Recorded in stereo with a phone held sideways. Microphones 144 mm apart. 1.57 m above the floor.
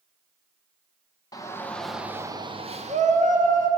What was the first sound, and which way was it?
A shout, 25° left (ahead or behind).